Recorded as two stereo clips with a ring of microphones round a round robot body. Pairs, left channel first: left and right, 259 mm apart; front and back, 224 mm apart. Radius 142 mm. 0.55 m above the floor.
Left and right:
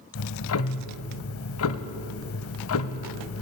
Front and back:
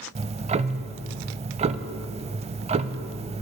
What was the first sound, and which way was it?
Ticking, 120° left.